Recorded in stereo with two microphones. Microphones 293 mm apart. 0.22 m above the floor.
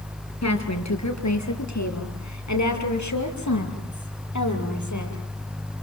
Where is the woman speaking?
65° left (ahead or behind), 4.5 m; by 5.2 s 80° left, 7 m.